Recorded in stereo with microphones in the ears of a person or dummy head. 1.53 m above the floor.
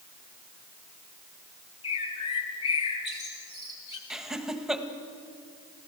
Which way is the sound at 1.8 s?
35° left (ahead or behind).